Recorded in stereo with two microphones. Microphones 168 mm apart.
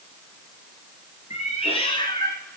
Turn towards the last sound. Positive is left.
turn(degrees=10)  # may be behind; listen again after turning